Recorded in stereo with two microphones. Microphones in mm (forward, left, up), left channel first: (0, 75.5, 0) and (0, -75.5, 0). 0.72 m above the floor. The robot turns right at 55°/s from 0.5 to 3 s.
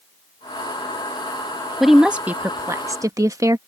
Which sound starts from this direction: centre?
A woman speaking, at 1.8 s.